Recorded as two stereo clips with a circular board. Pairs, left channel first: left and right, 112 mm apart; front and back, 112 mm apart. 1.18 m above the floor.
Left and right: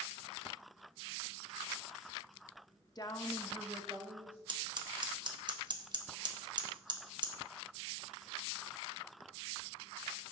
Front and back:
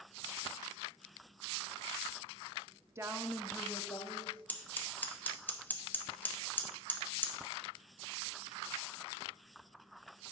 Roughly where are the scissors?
Right.